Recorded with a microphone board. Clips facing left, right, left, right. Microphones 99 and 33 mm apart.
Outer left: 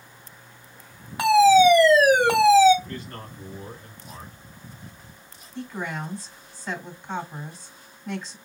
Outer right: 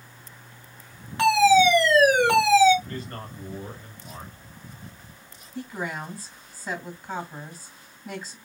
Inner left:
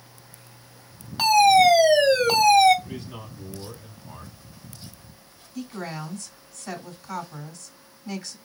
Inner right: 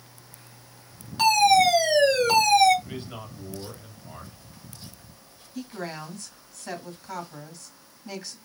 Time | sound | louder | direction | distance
1.2 | a fire alarm | outer left 2 dB, inner left 2 dB | 10° left (ahead or behind) | 1.8 m
2.9 | a man speaking | outer right 1 dB, even | 40° right (ahead or behind) | 1.9 m
5.5 | a woman speaking | even, inner left 1 dB | 5° right (ahead or behind) | 1.9 m